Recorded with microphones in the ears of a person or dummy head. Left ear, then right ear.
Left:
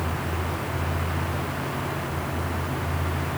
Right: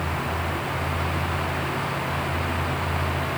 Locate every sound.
Only background noise.